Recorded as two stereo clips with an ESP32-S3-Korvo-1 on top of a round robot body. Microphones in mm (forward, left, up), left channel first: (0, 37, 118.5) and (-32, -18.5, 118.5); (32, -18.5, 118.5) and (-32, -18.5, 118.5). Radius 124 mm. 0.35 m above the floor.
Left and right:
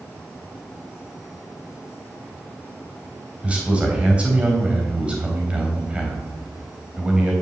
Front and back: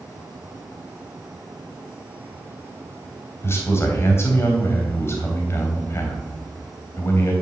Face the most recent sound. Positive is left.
turn(degrees=-50)